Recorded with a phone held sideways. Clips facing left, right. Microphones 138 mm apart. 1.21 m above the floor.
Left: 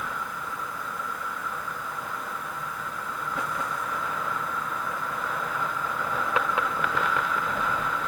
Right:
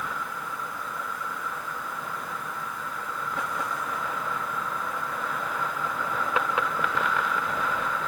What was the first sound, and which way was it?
Only background noise.